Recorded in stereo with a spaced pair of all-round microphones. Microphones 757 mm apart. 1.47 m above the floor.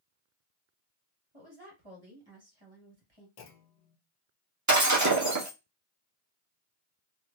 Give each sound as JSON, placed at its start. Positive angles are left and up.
{"t": 1.3, "sound": "a woman speaking", "side_deg": -30, "distance_m": 2.0}
{"t": 3.4, "sound": "a clunk", "side_deg": 60, "distance_m": 0.7}
{"t": 4.7, "sound": "breaking glass", "side_deg": -25, "distance_m": 0.9}